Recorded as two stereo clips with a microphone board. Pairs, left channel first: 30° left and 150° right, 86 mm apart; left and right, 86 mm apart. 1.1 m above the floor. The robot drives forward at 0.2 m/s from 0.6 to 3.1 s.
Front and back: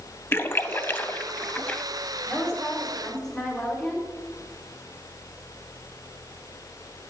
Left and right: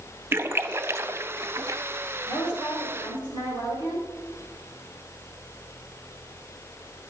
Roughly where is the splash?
Ahead right.